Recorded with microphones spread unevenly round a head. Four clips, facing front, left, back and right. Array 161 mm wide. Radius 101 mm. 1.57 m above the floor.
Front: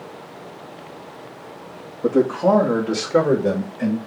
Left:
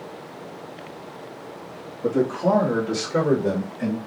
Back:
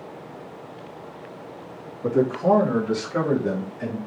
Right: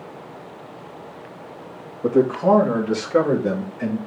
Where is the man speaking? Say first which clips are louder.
Right 4 dB, front 3 dB; 30° right, 2.5 m; by 4.0 s 15° right, 3.5 m.